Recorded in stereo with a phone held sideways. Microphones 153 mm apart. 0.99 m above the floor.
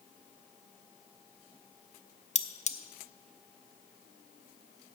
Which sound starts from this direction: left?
Cutlery clinking, at 2.4 s.